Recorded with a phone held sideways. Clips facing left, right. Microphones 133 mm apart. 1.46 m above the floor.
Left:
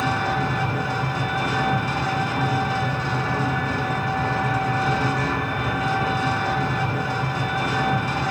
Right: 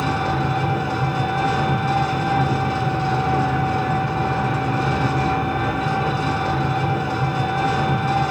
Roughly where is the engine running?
Right.